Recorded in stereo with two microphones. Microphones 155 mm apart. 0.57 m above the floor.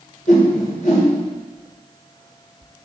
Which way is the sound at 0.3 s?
60° left (ahead or behind).